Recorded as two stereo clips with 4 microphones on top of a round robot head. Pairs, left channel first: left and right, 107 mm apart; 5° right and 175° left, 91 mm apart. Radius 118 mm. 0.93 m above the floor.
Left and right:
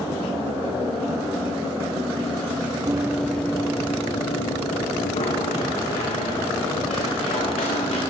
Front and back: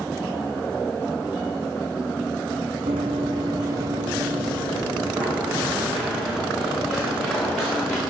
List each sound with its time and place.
2.9 s running footsteps: 145° right, 1.4 m; by 8.0 s 90° left, 7.5 m